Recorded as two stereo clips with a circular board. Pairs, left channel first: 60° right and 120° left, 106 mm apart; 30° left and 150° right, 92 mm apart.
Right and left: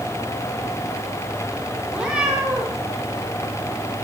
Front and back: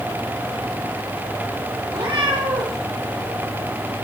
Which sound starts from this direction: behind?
A cat meowing, at 1.9 s.